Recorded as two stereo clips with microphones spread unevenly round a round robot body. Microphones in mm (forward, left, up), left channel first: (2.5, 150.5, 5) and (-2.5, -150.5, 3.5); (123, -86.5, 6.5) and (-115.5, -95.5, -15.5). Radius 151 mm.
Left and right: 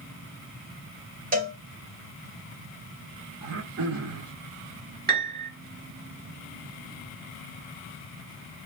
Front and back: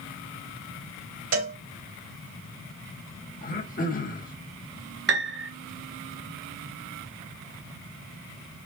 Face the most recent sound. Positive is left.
turn(degrees=-145)